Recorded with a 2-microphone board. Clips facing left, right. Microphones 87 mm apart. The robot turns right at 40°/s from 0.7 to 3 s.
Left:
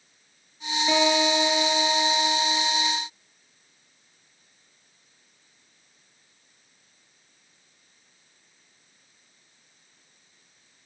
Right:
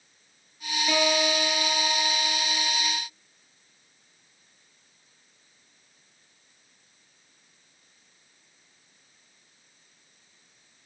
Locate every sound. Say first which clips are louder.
0.9 s a guitar: left 3 dB; 155° left, 2 m; by 2.8 s 130° right, 2 m